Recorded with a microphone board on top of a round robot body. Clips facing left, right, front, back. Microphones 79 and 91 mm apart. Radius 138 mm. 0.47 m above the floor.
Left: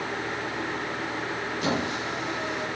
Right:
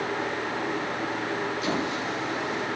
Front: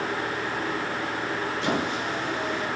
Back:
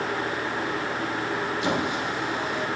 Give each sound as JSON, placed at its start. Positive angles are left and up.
{"t": 1.6, "sound": "a squeak", "azimuth_deg": 110, "distance_m": 4.5}